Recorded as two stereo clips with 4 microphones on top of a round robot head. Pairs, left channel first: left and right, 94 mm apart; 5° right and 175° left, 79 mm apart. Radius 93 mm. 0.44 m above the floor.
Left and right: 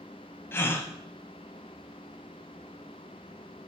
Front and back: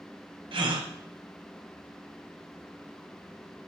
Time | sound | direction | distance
0.5 | a gasp | 155° left | 0.9 m